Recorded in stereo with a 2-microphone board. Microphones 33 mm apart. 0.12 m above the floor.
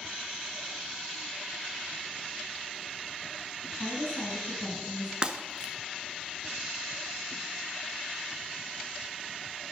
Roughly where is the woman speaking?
Centre.